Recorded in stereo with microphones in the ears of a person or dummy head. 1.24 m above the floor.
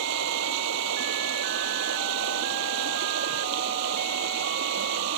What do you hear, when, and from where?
0.0 s running water: 70° right (ahead or behind)